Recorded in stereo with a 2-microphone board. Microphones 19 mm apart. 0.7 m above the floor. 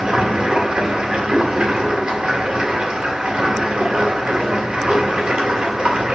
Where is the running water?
70° right (ahead or behind), 1.9 m.